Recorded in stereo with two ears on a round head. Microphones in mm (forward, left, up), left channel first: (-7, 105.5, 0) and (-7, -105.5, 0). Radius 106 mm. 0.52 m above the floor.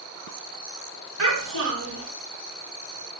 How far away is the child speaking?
About 3 m.